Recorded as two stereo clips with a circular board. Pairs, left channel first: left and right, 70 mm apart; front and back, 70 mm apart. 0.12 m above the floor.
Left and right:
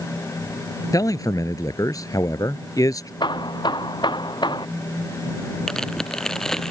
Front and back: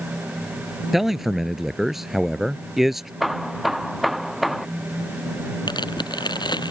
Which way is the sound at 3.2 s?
90° left.